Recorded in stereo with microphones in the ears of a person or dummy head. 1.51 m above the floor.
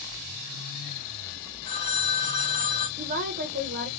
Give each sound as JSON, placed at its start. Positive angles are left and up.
{"t": 1.6, "sound": "a phone ringing", "side_deg": 35, "distance_m": 1.1}
{"t": 3.0, "sound": "a woman speaking", "side_deg": -45, "distance_m": 0.7}